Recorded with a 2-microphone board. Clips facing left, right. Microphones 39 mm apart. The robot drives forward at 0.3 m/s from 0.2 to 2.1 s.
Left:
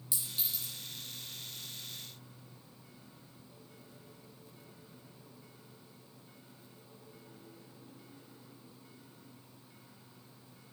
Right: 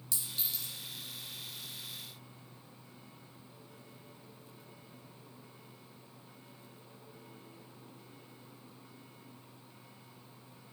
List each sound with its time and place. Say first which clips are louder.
0.1 s a clink: even; 20° left (ahead or behind), 1.9 m; by 0.7 s 25° left (ahead or behind), 1.8 m